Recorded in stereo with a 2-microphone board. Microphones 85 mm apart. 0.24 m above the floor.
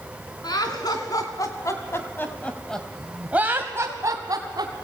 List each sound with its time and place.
0.4 s laughter: 55° left (ahead or behind), 3 m; by 4.8 s 55° right (ahead or behind), 2 m